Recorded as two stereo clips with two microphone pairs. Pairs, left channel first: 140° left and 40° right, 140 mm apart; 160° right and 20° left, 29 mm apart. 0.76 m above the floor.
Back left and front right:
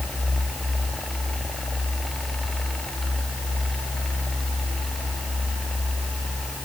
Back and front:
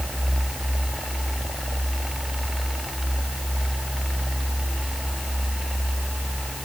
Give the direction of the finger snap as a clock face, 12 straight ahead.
I don't hear a finger snap.